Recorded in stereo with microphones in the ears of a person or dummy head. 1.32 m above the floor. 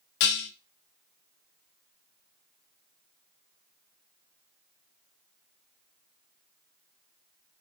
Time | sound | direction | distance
0.2 | dishes clattering | 55° left (ahead or behind) | 0.5 m